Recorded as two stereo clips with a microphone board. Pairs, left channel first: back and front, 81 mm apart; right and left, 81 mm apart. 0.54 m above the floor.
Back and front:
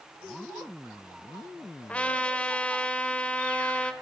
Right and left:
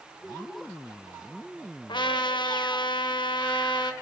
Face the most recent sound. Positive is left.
turn(degrees=-105)